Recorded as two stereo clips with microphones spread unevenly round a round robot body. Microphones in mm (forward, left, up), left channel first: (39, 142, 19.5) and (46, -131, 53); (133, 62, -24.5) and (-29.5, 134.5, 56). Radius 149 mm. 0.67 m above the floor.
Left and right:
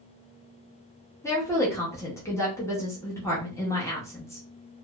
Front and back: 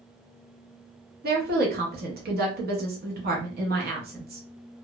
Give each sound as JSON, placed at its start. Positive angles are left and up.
{"t": 1.2, "sound": "a woman speaking", "azimuth_deg": 140, "distance_m": 0.8}